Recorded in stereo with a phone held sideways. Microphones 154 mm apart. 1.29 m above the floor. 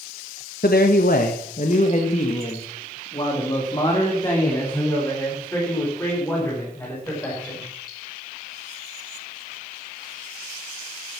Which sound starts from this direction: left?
A man speaking, at 0.6 s.